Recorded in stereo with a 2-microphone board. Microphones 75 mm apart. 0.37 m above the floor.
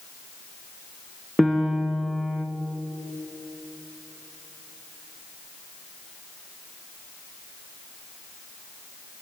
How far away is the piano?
About 1.9 m.